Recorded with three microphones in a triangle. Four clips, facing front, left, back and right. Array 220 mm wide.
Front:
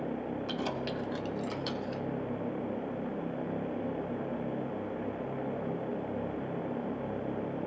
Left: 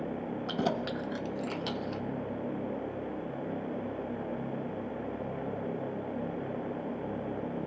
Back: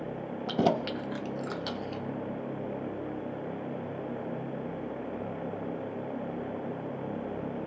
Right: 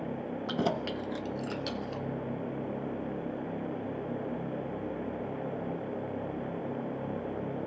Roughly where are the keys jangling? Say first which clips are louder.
Right 1 dB, back 12 dB; behind.